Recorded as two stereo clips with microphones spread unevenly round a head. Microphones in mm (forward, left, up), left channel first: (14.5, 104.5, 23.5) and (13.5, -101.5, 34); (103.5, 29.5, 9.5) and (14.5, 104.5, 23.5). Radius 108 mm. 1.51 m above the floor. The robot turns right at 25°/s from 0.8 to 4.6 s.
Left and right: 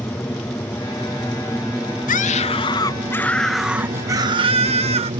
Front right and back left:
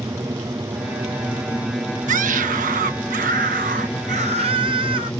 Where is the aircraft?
155° left; by 5.2 s 110° right.